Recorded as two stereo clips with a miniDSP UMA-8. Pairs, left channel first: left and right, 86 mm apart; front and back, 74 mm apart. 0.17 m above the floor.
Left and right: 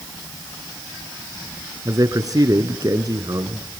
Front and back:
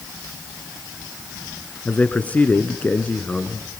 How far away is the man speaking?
About 1.8 m.